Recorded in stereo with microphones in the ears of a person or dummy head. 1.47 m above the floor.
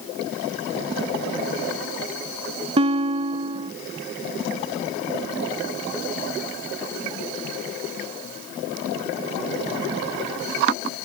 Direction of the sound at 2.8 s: 30° right (ahead or behind).